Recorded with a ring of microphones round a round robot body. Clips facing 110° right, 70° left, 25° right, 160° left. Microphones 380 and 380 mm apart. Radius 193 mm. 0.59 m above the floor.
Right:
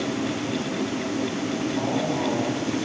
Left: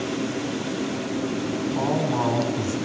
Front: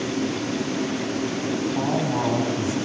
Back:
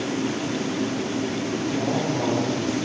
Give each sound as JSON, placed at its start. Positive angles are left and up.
{"t": 1.7, "sound": "a man speaking", "azimuth_deg": 45, "distance_m": 6.5}